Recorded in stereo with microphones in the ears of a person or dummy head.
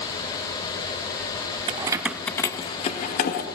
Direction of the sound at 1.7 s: 30° right (ahead or behind).